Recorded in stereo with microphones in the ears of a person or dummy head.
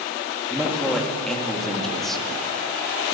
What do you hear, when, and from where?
0.5 s a man speaking: centre (ahead or behind), 3 m